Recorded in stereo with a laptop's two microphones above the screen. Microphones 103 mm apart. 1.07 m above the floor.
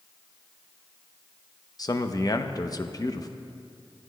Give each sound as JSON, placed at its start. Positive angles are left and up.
{"t": 1.8, "sound": "a man speaking", "side_deg": 40, "distance_m": 0.7}